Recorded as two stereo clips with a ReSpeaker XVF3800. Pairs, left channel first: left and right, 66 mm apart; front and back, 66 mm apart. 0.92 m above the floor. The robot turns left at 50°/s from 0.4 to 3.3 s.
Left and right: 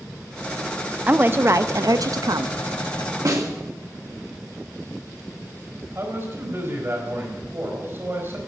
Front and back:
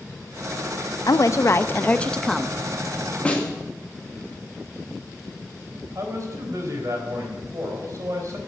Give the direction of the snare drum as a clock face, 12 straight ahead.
2 o'clock.